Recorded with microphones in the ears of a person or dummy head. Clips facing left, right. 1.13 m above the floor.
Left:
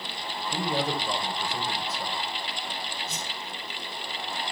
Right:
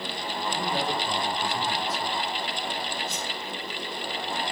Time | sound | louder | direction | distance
0.5 | a man speaking | left 2 dB | 75° left (ahead or behind) | 4 m
3.1 | a whoosh | right 3 dB | 55° left (ahead or behind) | 7.5 m